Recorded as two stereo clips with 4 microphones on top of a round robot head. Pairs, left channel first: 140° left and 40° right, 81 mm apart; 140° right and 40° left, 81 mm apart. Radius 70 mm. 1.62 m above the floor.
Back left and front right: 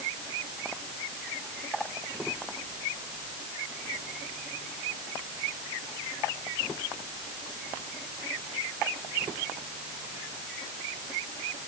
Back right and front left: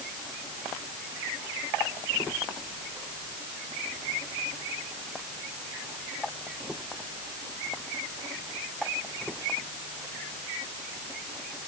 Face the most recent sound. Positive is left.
No sound to turn to.